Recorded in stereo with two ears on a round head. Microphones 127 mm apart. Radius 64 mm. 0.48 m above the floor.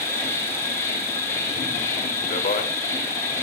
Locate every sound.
0.0 s an insect: 20° left (ahead or behind), 3.5 m
2.3 s a man speaking: 50° left (ahead or behind), 1.5 m